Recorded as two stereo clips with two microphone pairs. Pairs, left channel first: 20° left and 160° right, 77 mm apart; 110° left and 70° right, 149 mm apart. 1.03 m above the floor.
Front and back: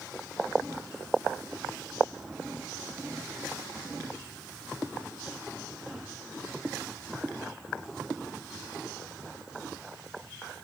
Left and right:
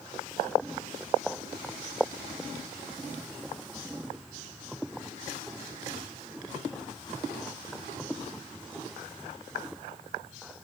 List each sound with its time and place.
Only background noise.